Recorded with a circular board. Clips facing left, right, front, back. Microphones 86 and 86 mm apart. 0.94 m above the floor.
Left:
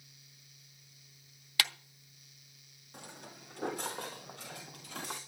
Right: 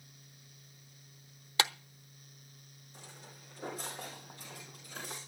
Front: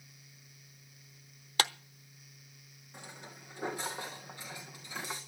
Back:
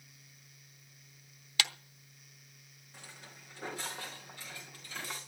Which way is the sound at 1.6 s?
35° right.